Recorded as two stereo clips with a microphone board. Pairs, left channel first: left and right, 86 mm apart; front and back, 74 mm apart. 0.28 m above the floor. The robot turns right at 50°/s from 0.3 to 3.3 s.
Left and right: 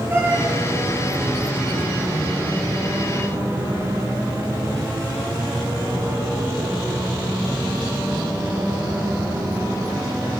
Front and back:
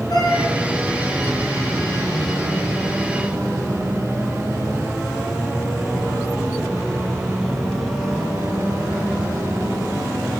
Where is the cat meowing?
25° right, 3 m; by 0.6 s 15° right, 3 m.